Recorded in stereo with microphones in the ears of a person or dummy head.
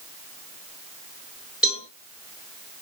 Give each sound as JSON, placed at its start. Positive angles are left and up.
{"t": 1.6, "sound": "a cowbell", "side_deg": 5, "distance_m": 4.0}